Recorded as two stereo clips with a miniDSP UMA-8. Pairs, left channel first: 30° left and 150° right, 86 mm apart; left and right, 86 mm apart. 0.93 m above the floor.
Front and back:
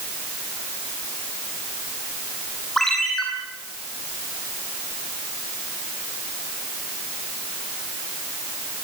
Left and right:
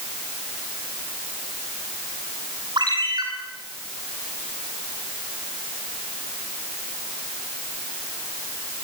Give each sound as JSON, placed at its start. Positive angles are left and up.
{"t": 2.8, "sound": "a ringtone", "azimuth_deg": -60, "distance_m": 9.0}